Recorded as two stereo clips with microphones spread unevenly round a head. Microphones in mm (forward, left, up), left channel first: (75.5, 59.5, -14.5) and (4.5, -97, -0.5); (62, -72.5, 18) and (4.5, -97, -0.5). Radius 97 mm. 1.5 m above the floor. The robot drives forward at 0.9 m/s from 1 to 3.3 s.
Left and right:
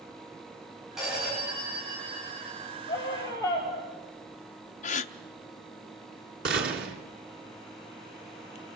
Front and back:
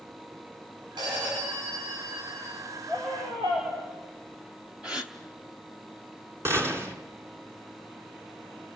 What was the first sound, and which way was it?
A phone ringing, 160° left.